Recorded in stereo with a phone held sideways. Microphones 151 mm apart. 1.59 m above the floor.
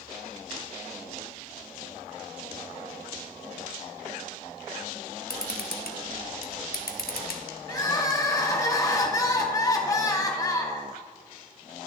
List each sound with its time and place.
5.3 s a camera shutter: 80° left, 0.8 m
7.7 s crying: 20° left (ahead or behind), 0.8 m